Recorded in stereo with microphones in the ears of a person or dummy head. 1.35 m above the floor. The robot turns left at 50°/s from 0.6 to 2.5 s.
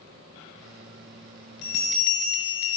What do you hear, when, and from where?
1.6 s a bell: 115° left, 1.2 m; by 2.8 s 70° left, 1.2 m